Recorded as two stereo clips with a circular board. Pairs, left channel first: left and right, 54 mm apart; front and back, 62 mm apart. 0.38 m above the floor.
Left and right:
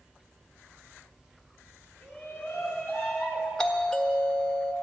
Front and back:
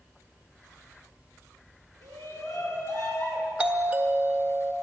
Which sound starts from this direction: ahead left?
A shout, at 2.0 s.